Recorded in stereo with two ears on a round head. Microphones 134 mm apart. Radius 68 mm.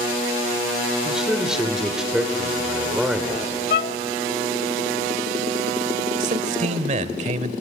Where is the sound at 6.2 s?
50° right (ahead or behind), 1.3 m.